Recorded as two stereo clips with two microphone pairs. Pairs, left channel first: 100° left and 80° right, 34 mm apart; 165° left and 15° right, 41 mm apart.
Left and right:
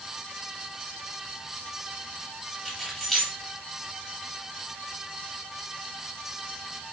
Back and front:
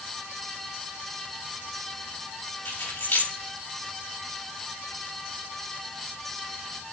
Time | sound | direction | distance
2.6 | keys jangling | straight behind | 3.5 m